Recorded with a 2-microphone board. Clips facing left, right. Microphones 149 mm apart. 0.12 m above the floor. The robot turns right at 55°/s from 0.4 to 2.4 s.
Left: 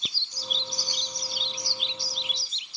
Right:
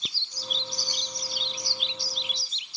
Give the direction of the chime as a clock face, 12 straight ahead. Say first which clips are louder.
Even; 5 o'clock.